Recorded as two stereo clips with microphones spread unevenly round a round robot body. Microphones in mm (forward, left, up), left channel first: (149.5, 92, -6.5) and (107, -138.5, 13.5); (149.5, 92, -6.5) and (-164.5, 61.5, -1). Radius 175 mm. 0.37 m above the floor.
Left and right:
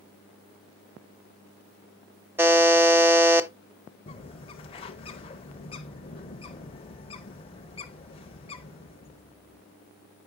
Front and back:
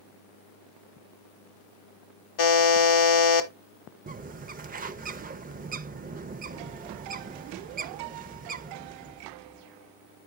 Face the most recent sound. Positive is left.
turn(degrees=130)